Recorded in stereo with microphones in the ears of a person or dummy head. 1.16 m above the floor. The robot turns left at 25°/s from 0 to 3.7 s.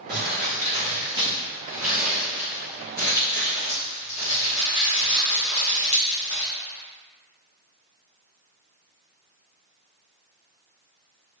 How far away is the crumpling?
About 1.1 m.